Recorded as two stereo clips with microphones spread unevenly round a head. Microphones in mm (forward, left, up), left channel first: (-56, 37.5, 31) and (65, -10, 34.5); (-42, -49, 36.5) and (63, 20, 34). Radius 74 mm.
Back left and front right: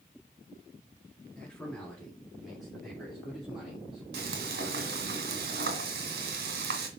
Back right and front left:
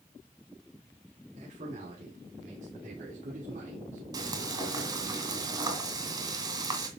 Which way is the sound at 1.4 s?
75° left.